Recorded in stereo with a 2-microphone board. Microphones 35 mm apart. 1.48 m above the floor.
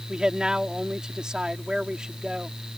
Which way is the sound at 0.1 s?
20° right (ahead or behind).